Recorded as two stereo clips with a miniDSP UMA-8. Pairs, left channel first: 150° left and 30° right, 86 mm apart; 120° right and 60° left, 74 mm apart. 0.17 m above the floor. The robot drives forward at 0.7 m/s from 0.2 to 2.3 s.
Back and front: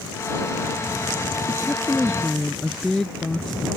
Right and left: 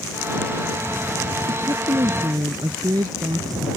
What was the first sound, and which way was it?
A woman speaking, 55° left.